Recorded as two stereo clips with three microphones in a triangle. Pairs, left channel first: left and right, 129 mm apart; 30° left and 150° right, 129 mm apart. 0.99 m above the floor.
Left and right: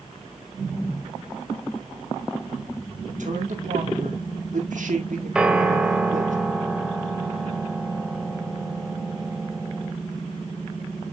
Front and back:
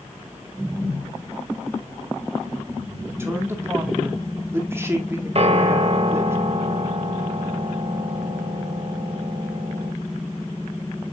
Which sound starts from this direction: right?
A man speaking, at 3.1 s.